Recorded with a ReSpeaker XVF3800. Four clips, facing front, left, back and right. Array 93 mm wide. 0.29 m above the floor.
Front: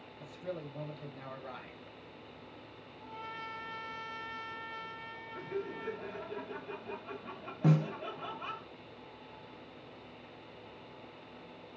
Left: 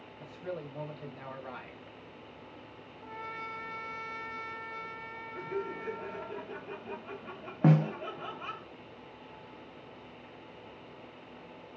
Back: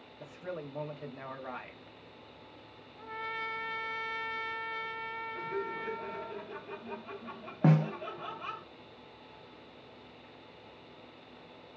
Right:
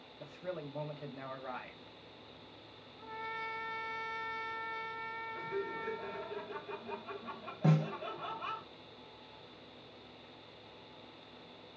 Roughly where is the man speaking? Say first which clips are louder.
Left 2 dB, back 1 dB; behind.